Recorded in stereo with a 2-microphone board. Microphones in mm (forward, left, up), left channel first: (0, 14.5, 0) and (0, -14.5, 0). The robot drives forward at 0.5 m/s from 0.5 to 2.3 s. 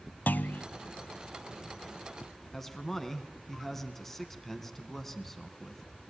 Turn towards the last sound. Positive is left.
turn(degrees=15)  # may be behind; listen again after turning